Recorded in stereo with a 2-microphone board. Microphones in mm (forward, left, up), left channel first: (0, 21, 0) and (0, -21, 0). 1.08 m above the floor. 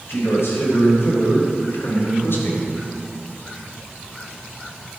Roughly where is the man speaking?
Left.